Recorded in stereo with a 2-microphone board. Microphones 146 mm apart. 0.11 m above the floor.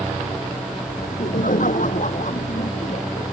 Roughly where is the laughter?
Left.